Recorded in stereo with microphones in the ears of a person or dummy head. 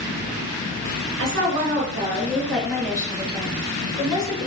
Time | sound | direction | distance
1.2 | a woman speaking | 65° right (ahead or behind) | 0.7 m